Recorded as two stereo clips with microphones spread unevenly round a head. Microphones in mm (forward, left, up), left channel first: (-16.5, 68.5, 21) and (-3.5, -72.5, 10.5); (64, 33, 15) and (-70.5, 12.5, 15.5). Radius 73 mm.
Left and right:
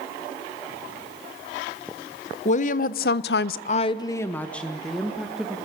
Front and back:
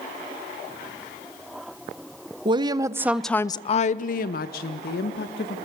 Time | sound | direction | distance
2.5 | a woman speaking | 135° left | 1.4 m